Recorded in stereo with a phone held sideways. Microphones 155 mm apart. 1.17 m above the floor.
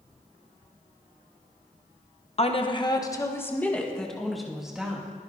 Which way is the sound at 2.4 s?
40° left (ahead or behind).